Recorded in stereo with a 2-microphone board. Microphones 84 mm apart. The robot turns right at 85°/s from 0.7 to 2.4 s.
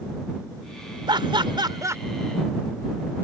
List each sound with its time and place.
1.1 s laughter: 60° right (ahead or behind); by 2.0 s 30° right (ahead or behind)